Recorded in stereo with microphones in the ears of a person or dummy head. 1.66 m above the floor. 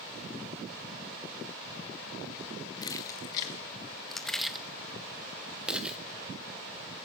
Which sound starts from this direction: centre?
Keys jangling, at 2.8 s.